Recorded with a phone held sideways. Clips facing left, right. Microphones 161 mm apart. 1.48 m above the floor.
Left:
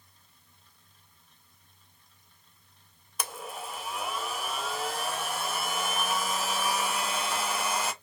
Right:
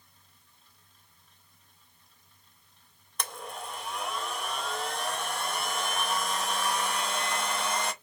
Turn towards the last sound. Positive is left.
turn(degrees=5)  # may be behind; listen again after turning